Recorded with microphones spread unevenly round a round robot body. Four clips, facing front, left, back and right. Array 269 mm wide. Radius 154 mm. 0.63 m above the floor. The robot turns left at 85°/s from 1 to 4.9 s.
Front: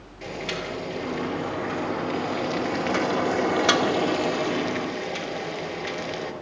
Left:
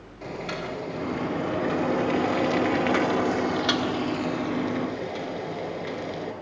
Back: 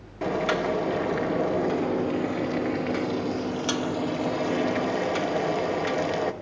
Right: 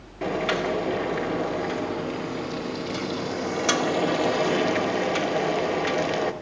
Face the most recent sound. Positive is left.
turn(degrees=-110)